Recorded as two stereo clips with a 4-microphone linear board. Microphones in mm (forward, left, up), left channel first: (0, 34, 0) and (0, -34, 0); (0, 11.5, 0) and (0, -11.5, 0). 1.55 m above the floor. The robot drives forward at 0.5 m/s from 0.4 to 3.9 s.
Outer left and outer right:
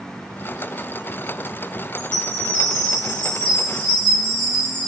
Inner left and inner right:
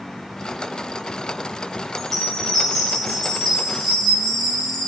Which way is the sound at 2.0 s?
15° left (ahead or behind).